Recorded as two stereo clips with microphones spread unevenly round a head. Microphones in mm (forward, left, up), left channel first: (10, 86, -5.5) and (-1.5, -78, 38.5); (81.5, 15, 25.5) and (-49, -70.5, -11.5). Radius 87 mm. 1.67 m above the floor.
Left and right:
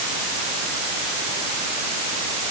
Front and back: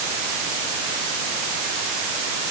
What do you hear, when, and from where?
Only background noise.